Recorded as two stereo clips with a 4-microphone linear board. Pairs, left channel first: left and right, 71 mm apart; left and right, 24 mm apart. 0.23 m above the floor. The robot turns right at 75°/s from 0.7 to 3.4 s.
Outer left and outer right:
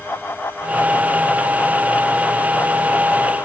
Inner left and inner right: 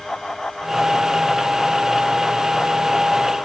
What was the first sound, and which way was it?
Only background noise.